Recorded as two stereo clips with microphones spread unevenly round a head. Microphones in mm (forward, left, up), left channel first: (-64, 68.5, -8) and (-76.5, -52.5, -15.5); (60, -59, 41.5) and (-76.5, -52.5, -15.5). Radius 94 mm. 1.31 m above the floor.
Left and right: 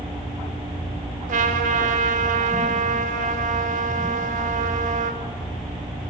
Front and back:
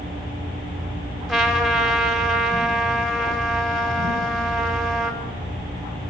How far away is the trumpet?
About 4.5 m.